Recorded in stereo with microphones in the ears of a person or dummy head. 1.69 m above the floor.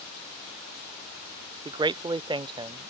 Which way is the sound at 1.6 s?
25° right (ahead or behind).